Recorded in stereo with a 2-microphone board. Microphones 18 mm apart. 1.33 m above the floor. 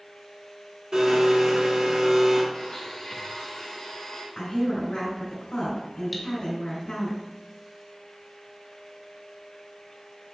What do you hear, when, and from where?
0.9 s a blender: 50° right (ahead or behind), 1.3 m
2.5 s a blender: 50° left (ahead or behind), 1.4 m
4.3 s a woman speaking: 80° left, 2.5 m
6.1 s cutlery clinking: centre (ahead or behind), 0.7 m